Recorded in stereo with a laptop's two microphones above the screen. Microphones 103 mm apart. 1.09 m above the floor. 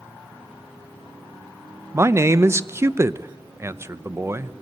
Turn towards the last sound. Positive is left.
turn(degrees=-25)  # may be behind; listen again after turning